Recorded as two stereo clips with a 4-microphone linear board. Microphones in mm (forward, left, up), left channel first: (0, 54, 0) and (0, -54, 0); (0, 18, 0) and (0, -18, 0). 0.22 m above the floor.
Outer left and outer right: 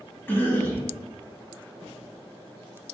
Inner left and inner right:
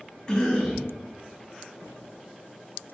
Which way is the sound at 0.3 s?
20° left (ahead or behind).